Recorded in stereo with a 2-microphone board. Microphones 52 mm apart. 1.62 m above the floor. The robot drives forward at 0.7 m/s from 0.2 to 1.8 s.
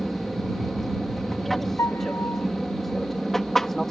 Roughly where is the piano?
Left.